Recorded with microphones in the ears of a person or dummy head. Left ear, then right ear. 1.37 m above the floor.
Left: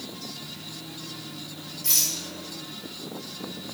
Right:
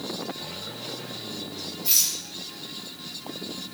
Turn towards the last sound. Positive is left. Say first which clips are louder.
# right 1 dB
turn(degrees=60)  # may be behind; listen again after turning